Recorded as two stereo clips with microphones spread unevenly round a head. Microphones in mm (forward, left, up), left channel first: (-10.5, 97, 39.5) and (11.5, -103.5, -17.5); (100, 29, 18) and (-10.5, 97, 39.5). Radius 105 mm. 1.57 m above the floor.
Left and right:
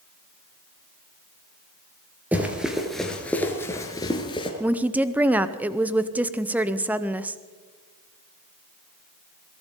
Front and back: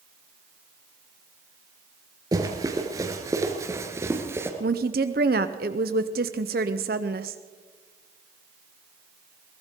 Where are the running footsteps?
175° left, 1.8 m; by 4.5 s 105° left, 1.9 m.